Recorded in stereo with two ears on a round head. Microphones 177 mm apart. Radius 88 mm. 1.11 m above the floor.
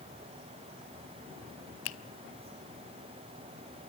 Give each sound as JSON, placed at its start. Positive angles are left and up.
{"t": 1.9, "sound": "a finger snap", "side_deg": 80, "distance_m": 1.0}